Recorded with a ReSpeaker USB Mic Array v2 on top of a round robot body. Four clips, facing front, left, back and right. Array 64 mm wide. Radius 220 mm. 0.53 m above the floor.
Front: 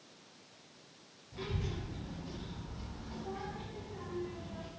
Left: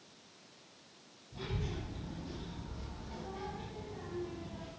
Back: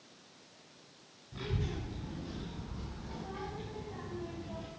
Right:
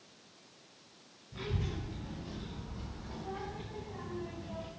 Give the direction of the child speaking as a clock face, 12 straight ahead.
5 o'clock.